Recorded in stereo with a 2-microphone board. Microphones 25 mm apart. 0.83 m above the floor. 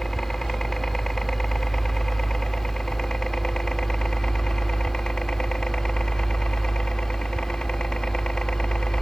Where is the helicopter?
20° left (ahead or behind); by 9.0 s 35° left (ahead or behind).